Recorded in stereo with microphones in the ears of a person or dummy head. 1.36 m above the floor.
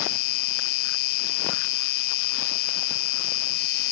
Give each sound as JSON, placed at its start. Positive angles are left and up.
{"t": 0.0, "sound": "an insect", "side_deg": 55}